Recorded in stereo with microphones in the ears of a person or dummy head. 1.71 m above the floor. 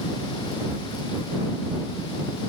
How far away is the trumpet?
I don't hear a trumpet.